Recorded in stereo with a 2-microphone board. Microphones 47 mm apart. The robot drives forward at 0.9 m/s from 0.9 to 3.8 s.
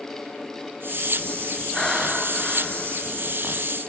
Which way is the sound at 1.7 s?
10° left (ahead or behind).